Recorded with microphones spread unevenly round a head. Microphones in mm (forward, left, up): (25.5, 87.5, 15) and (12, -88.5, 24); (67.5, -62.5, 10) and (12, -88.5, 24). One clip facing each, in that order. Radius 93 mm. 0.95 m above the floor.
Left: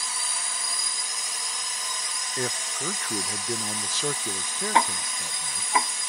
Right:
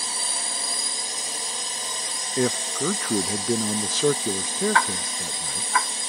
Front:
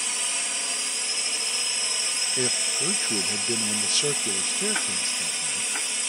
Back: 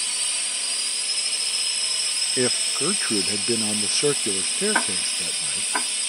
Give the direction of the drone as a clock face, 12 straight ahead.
1 o'clock.